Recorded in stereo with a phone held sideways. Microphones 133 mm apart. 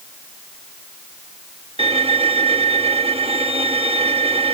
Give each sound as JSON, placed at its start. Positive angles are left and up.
{"t": 1.8, "sound": "a violin", "side_deg": -50}